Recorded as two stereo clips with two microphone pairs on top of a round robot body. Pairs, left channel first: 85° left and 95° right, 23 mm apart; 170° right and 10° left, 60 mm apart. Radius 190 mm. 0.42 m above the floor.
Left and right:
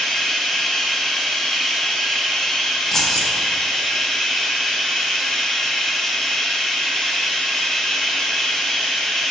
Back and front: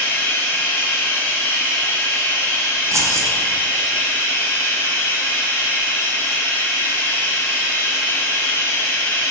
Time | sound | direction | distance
0.0 | running water | 155° left | 0.7 m
2.9 | keys jangling | 25° left | 0.5 m